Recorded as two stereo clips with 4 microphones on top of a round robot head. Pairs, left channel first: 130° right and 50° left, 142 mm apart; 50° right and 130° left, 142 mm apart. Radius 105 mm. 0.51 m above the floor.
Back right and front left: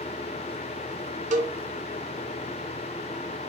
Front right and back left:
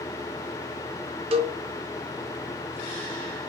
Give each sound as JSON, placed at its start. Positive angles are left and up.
{"t": 1.3, "sound": "a cowbell", "azimuth_deg": 85, "distance_m": 0.5}